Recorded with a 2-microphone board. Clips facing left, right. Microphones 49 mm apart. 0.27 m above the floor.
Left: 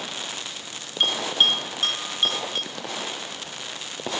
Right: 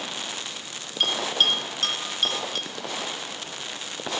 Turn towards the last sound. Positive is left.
turn(degrees=15)  # may be behind; listen again after turning